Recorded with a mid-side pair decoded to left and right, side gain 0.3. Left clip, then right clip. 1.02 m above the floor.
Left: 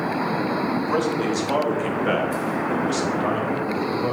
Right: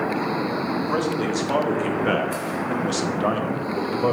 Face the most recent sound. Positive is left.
turn(degrees=-65)